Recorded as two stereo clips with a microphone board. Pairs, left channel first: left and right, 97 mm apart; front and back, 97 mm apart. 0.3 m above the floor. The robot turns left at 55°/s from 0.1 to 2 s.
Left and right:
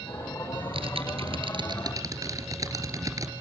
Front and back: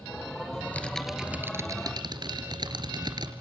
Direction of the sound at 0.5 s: 60° right.